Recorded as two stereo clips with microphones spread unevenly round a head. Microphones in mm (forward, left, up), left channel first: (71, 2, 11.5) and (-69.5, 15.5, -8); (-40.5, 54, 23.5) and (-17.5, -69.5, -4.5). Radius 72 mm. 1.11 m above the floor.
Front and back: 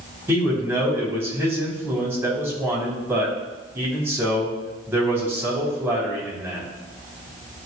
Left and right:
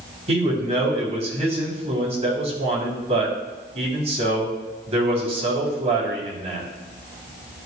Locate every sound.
0.3 s a man speaking: 110° right, 3 m